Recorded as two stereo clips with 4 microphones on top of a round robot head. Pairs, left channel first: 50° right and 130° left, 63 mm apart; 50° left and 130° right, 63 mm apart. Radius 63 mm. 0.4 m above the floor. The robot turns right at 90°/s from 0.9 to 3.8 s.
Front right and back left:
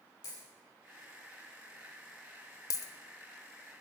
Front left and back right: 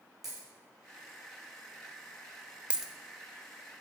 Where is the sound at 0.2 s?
50° right, 5.5 m.